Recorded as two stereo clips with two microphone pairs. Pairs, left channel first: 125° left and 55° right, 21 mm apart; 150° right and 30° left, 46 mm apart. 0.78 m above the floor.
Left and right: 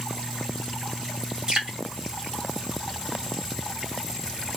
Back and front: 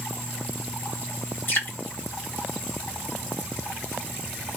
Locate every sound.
1.5 s dripping: 110° right, 2 m